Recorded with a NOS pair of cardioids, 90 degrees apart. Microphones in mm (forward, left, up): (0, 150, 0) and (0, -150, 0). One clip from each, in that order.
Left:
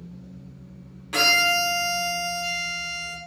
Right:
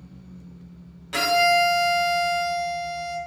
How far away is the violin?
About 0.8 m.